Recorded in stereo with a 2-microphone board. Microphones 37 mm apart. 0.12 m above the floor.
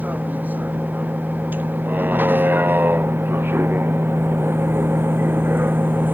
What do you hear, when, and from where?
0.0 s a vehicle: 50° right (ahead or behind); by 6.1 s 60° right (ahead or behind)